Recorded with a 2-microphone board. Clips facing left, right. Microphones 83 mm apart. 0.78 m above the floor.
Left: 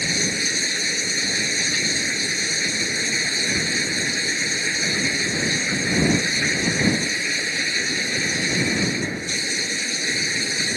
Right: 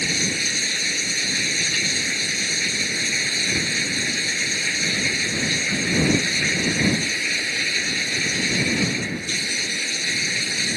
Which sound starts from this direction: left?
Running water, at 0.0 s.